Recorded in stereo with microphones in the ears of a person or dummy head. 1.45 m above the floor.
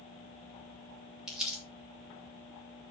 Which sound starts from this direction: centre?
Crumpling, at 1.3 s.